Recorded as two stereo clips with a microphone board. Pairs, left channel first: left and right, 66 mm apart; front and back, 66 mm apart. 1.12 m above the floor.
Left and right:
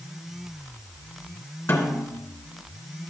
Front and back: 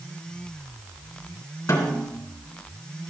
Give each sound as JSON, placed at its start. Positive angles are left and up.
{"t": 1.7, "sound": "a snare drum", "azimuth_deg": 45, "distance_m": 2.5}